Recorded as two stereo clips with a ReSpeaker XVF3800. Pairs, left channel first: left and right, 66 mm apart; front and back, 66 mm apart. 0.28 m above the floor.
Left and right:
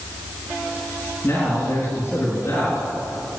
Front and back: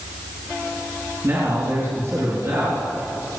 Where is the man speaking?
135° left, 4.5 m.